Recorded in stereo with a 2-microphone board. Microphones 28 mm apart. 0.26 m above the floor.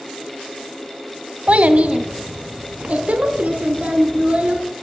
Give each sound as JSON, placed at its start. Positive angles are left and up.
{"t": 1.5, "sound": "a child speaking", "side_deg": -50, "distance_m": 1.1}